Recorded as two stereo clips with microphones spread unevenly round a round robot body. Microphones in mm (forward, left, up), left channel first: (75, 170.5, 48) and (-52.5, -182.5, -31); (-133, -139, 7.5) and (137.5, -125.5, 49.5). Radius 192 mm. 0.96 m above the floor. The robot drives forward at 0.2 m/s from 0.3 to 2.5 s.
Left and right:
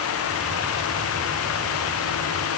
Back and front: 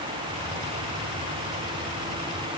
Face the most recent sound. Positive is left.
No sound to turn to.